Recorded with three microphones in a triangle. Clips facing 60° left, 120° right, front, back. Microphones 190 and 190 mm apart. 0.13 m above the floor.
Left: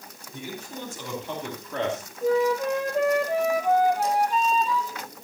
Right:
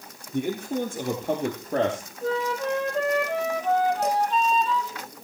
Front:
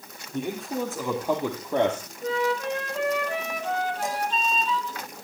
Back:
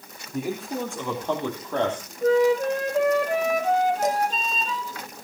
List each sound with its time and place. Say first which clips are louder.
0.3 s a man speaking: right 11 dB, back 1 dB; 95° right, 3.5 m; by 2.1 s 65° right, 3 m
2.2 s a flute: left 5 dB, back 8 dB; 135° left, 2 m
4.0 s dishes clattering: even, back 6 dB; 135° right, 3.5 m